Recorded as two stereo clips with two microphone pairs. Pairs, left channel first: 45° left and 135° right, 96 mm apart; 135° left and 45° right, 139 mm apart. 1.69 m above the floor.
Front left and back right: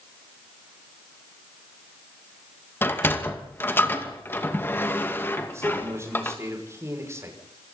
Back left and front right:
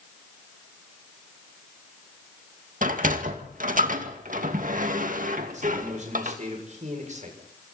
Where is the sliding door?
25° right, 2 m.